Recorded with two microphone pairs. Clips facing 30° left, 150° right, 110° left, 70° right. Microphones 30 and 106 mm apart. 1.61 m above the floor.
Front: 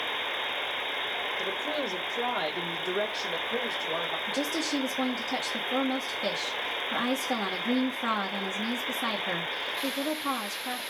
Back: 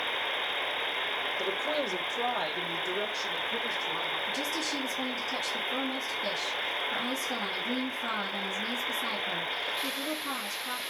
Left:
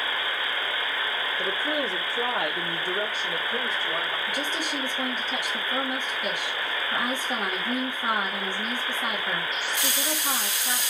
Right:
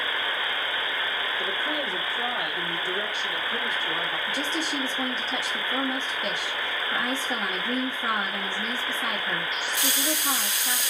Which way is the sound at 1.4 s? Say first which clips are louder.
Even, left 4 dB; 130° left.